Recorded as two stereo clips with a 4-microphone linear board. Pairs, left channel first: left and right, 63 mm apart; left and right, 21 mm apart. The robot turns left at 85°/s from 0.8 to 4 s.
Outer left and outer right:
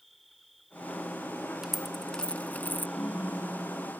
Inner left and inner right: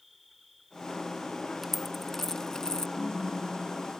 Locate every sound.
0.0 s an insect: straight behind; by 4.0 s 95° right
1.6 s a dropped coin: 5° right (ahead or behind); by 2.9 s 30° left (ahead or behind)
3.0 s a ringtone: 50° left; by 3.9 s 30° right